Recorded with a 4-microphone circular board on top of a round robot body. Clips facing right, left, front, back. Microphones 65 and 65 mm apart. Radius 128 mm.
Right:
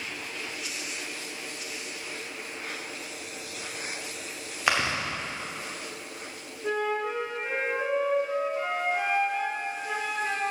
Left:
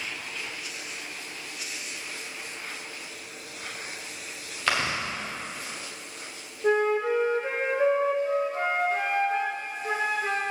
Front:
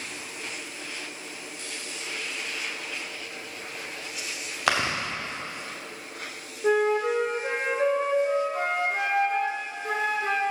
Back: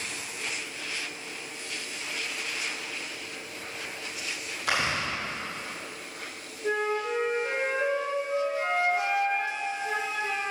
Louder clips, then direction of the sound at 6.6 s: Left 5 dB, front 6 dB; 35° left.